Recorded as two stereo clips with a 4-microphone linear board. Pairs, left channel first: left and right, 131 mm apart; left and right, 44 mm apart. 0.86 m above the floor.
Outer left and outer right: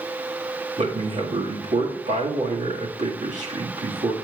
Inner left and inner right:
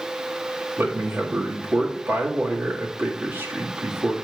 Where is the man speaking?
65° right (ahead or behind), 1.8 m.